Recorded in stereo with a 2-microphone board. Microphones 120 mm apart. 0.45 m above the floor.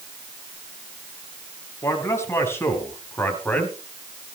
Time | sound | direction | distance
1.8 | a man speaking | 25° left (ahead or behind) | 4 m